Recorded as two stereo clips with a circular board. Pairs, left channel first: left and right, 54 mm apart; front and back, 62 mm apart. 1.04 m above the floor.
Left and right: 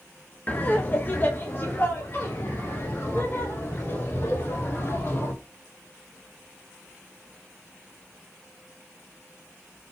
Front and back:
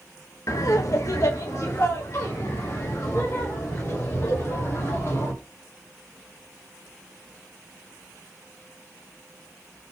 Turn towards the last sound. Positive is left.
turn(degrees=45)